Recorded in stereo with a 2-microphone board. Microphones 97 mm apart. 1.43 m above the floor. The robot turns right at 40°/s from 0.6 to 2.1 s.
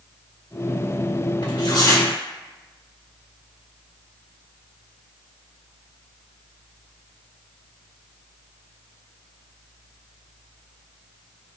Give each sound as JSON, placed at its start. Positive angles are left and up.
{"t": 1.4, "sound": "tearing paper", "side_deg": 65, "distance_m": 2.5}